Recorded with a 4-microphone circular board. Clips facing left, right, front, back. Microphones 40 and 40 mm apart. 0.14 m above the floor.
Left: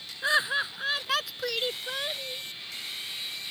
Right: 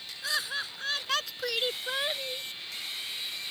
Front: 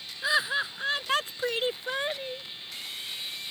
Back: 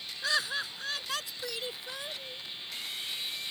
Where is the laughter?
60° left; by 2.5 s 20° right.